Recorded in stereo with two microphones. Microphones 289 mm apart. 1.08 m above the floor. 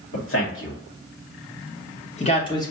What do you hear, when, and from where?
0.1 s a man speaking: 50° left (ahead or behind), 2.5 m; by 2.7 s 10° left (ahead or behind), 1.1 m